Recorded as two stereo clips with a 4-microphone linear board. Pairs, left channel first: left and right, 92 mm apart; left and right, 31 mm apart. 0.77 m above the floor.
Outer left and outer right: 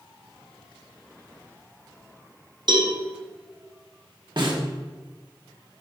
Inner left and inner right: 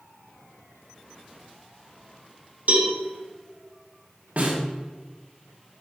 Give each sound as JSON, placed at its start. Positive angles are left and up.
{"t": 2.7, "sound": "a cowbell", "side_deg": -55, "distance_m": 1.7}
{"t": 4.4, "sound": "a snare drum", "side_deg": -55, "distance_m": 1.4}